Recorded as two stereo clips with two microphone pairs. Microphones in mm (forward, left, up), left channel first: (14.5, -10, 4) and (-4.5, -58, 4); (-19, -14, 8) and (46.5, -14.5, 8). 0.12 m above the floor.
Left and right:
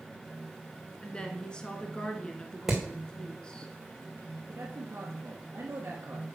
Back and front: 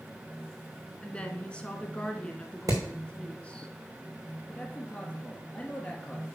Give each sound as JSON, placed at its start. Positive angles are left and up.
{"t": 1.0, "sound": "a woman speaking", "azimuth_deg": 125, "distance_m": 1.3}
{"t": 2.7, "sound": "hammering", "azimuth_deg": -30, "distance_m": 3.0}
{"t": 4.5, "sound": "a man speaking", "azimuth_deg": -115, "distance_m": 1.5}